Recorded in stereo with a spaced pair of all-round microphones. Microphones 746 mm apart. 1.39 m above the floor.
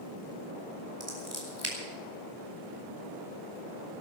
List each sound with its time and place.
1.0 s scissors: 20° right (ahead or behind), 3.5 m